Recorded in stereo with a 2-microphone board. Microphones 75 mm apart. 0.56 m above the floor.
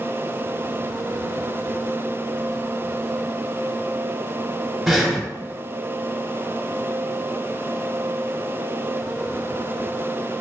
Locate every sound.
4.9 s breathing: centre (ahead or behind), 0.7 m